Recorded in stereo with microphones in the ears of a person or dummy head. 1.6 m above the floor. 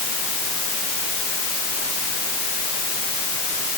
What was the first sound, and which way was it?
Only background noise.